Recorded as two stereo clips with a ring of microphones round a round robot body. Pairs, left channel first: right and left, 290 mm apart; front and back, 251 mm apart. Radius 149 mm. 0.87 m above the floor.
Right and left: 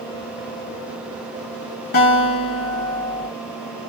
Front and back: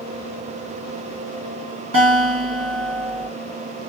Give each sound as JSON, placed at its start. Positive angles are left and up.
{"t": 1.9, "sound": "a guitar", "azimuth_deg": -140, "distance_m": 2.0}